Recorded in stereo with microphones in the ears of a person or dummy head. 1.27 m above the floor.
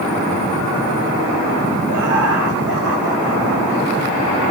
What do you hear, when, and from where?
1.9 s laughter: 65° right (ahead or behind), 2.5 m; by 4.2 s 75° right (ahead or behind), 4 m